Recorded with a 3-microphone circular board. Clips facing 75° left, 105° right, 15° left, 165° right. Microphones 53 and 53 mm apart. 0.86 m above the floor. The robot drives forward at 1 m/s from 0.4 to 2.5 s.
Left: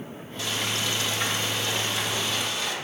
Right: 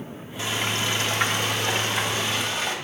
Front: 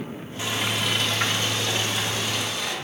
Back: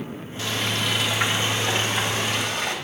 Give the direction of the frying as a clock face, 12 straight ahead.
2 o'clock.